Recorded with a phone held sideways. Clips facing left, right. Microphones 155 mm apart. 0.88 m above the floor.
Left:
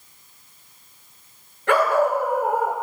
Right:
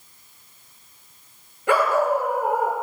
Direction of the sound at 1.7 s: 10° right (ahead or behind).